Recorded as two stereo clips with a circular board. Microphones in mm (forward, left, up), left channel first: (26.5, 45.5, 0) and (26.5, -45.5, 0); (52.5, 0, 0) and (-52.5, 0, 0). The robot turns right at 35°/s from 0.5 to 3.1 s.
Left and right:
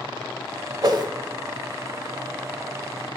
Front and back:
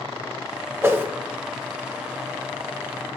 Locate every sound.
0.8 s a whoosh: 120° right, 0.6 m; by 1.1 s 110° right, 0.6 m